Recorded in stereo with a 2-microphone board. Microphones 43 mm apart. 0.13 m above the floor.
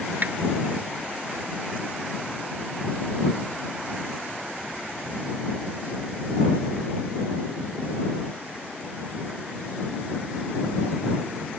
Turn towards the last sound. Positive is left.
turn(degrees=-50)  # may be behind; listen again after turning